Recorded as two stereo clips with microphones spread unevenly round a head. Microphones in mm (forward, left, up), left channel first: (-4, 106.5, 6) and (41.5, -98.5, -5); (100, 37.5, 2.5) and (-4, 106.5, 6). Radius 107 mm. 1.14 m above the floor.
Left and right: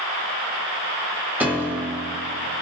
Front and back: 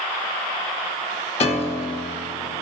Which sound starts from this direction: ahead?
A piano, at 1.4 s.